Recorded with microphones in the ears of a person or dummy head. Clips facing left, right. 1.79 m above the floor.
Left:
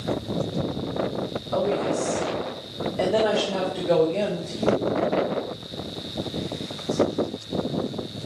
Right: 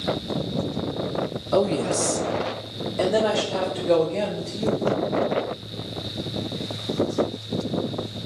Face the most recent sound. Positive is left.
turn(degrees=15)  # may be behind; listen again after turning